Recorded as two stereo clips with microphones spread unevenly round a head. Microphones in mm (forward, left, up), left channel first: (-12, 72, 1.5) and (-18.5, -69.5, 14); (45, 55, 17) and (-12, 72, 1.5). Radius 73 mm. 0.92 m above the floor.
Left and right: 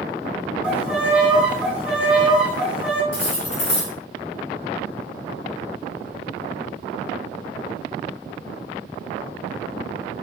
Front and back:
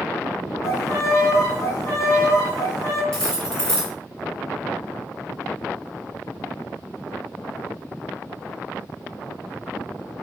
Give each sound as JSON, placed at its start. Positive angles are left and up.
{"t": 0.6, "sound": "a violin", "azimuth_deg": -15, "distance_m": 0.9}
{"t": 3.1, "sound": "cutlery clinking", "azimuth_deg": 60, "distance_m": 1.7}